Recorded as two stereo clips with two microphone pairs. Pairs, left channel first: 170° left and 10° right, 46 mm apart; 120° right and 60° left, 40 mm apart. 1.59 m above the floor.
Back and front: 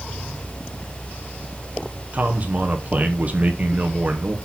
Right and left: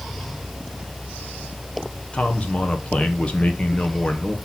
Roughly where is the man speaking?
Ahead right.